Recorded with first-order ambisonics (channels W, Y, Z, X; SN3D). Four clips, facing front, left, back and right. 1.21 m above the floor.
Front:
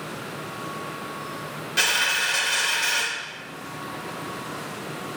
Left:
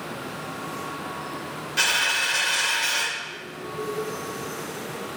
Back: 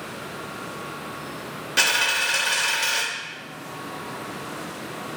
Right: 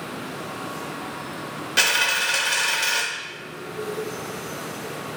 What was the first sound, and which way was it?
A dropped coin, 120° right.